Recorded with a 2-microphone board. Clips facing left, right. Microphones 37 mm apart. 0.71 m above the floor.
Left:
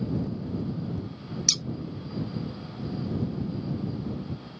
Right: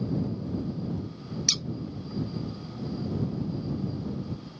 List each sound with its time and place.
1.5 s scissors: 5° right (ahead or behind)